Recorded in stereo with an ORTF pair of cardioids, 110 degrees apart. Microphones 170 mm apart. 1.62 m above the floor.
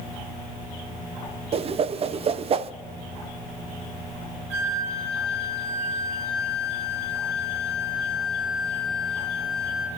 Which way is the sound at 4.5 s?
65° right.